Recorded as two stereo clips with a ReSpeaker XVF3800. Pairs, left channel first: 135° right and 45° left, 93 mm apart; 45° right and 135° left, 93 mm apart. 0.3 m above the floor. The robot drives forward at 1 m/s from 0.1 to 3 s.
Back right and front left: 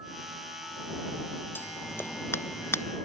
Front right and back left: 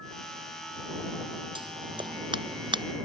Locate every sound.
1.6 s scissors: 160° left; by 2.8 s 165° left